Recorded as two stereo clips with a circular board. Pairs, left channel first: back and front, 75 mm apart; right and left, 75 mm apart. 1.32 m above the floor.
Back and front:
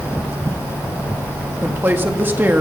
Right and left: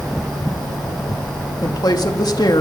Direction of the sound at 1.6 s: 65° right.